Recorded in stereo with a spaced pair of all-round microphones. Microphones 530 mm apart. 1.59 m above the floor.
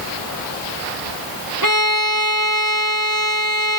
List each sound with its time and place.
1.6 s a violin: 40° right (ahead or behind), 0.8 m